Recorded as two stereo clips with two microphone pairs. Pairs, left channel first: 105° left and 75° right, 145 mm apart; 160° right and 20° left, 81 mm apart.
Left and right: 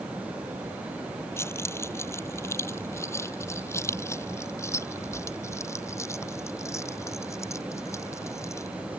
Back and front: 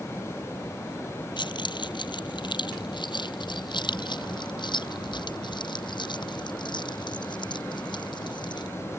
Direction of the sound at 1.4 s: Straight behind.